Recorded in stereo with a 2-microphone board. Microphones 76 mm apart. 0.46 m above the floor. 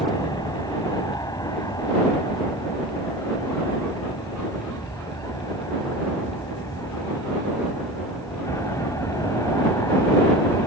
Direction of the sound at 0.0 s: 60° left (ahead or behind).